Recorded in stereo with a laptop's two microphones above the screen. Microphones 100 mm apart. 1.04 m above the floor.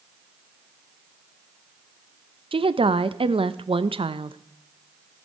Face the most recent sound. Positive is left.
turn(degrees=-65)  # may be behind; listen again after turning